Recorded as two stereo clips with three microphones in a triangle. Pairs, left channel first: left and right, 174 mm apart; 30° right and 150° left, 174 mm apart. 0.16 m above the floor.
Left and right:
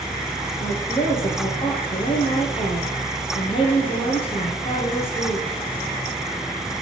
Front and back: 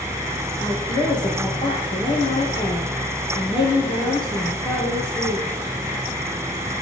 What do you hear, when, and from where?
0.6 s a woman speaking: 35° left, 4 m